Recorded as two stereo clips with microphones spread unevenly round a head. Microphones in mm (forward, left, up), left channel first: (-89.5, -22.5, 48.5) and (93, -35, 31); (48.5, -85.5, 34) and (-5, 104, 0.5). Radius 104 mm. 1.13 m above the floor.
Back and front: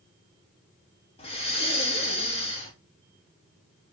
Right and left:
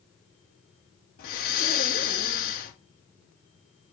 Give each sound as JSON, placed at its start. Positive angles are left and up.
{"t": 1.2, "sound": "breathing", "azimuth_deg": -125, "distance_m": 2.5}